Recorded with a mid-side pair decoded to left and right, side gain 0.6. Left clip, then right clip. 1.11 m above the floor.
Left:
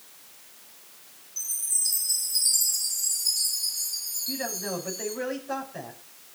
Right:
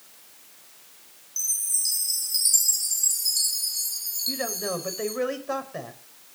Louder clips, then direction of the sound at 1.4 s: Right 3 dB; 45° right.